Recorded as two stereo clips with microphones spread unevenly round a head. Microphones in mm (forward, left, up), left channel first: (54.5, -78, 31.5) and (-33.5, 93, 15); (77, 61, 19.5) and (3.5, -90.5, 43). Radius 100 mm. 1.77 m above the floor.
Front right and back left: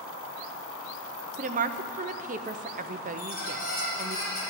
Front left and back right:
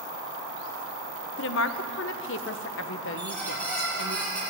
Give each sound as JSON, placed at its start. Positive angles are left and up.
{"t": 1.4, "sound": "a woman speaking", "azimuth_deg": 65, "distance_m": 0.8}
{"t": 3.2, "sound": "a squeak", "azimuth_deg": -20, "distance_m": 6.0}